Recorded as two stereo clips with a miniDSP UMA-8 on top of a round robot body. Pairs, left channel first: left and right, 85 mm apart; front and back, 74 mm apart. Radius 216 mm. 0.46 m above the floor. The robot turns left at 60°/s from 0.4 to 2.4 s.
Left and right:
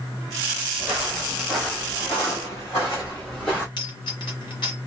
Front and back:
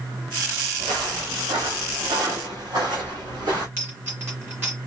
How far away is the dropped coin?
About 1.3 m.